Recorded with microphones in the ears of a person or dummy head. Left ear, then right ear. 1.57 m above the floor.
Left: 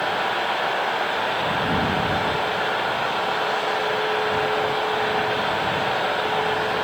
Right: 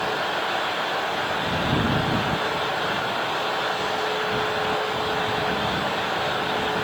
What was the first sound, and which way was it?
Only background noise.